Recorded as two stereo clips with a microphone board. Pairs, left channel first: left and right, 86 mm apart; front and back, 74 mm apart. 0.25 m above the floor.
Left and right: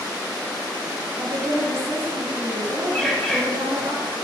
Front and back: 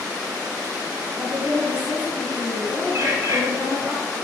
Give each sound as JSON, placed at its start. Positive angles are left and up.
{"t": 1.2, "sound": "a woman speaking", "azimuth_deg": -110, "distance_m": 1.2}
{"t": 2.9, "sound": "a bird", "azimuth_deg": 175, "distance_m": 0.8}